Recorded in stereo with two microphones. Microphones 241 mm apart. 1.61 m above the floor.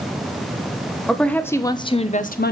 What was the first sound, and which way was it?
A woman speaking, centre (ahead or behind).